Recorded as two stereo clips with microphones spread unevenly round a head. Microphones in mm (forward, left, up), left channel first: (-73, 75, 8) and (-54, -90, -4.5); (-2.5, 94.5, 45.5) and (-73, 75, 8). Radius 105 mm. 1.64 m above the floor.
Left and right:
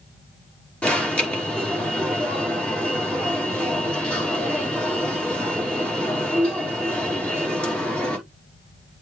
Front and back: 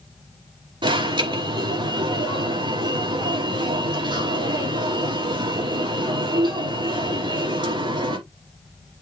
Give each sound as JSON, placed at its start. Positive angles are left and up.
{"t": 0.8, "sound": "an alarm", "azimuth_deg": 180, "distance_m": 4.5}